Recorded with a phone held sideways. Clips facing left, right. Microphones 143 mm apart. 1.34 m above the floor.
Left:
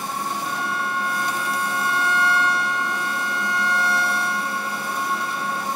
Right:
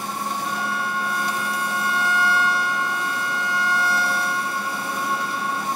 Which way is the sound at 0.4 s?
Centre (ahead or behind).